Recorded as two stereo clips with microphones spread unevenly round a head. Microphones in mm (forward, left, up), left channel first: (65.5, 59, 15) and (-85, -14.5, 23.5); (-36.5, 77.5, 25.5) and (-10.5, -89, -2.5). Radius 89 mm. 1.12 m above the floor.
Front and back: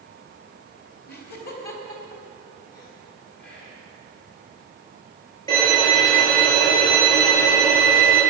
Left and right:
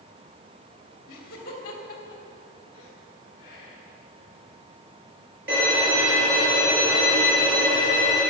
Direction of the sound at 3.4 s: 40° left.